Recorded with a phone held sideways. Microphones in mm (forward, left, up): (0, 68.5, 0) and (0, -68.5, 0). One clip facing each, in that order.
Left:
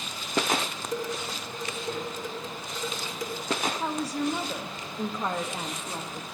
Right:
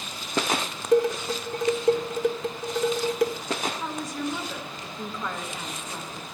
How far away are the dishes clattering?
About 1.3 m.